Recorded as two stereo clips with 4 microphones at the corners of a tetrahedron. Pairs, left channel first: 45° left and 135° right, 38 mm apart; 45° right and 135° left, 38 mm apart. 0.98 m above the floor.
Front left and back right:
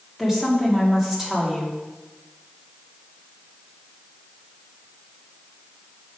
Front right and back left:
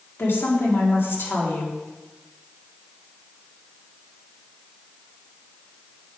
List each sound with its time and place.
0.2 s a woman speaking: 55° right, 1.9 m